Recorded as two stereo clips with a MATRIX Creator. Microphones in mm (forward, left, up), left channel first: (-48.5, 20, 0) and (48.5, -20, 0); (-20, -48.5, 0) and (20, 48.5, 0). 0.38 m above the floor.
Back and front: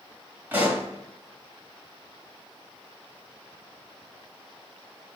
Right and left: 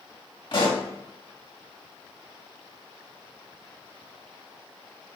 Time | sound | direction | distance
0.5 | a pop | 90° right | 1.2 m